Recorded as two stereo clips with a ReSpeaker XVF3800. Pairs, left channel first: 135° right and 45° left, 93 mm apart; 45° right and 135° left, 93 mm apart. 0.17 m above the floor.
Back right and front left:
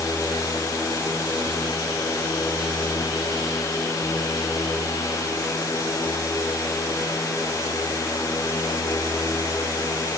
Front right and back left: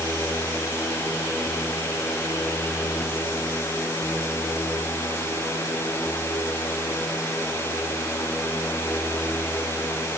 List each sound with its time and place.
Only background noise.